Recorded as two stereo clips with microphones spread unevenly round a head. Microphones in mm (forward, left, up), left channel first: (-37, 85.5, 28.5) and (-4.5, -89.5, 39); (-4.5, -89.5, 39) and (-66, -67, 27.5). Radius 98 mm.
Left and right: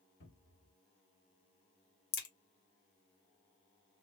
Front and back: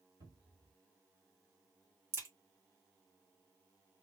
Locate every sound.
0.2 s a cupboard door: 130° left, 1.8 m
2.1 s a crack: 110° left, 1.3 m